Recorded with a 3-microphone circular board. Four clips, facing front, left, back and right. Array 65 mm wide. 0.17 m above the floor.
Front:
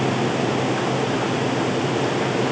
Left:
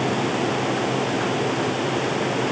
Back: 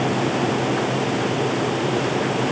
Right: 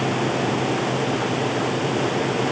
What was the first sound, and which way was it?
Only background noise.